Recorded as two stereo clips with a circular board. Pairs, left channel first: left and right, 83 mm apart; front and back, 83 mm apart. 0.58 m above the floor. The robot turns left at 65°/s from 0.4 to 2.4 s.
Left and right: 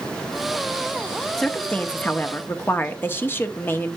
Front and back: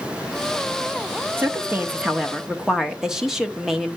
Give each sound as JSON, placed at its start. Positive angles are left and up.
{"t": 1.4, "sound": "a woman speaking", "azimuth_deg": 170, "distance_m": 0.7}